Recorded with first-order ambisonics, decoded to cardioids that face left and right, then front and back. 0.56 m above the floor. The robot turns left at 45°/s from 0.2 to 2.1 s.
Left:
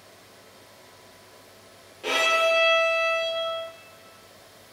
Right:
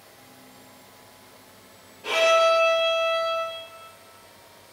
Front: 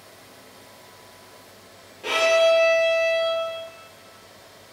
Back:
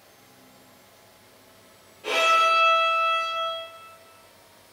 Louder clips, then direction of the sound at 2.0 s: Right 3 dB, front 2 dB; 55° left.